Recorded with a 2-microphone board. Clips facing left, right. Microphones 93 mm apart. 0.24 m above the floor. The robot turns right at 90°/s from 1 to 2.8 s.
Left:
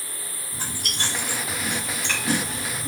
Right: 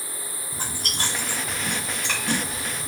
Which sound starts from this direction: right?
Chewing, at 0.5 s.